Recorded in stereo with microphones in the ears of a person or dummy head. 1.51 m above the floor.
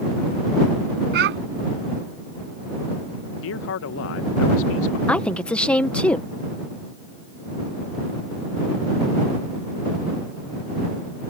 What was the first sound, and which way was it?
A child speaking, 50° right (ahead or behind).